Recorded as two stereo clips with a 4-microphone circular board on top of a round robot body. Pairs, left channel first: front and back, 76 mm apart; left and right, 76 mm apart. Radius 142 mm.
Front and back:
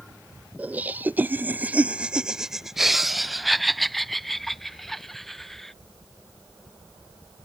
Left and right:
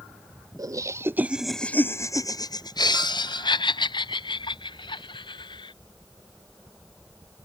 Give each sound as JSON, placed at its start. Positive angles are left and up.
{"t": 0.6, "sound": "laughter", "azimuth_deg": -115}